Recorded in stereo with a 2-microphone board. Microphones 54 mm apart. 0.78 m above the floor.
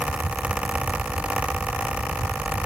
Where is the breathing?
I don't hear breathing.